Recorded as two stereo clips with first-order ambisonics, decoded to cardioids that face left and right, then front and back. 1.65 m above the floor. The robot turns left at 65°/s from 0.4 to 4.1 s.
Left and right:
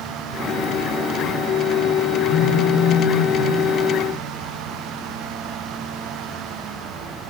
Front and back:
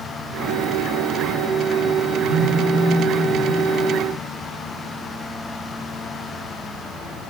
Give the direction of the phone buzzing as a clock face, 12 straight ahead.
6 o'clock.